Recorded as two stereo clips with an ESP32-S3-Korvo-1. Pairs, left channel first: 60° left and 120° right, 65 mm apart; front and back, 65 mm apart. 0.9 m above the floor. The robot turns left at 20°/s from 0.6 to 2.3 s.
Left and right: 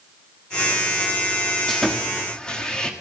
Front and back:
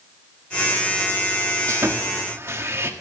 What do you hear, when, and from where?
1.7 s sawing: 150° left, 1.4 m; by 2.9 s 135° left, 1.4 m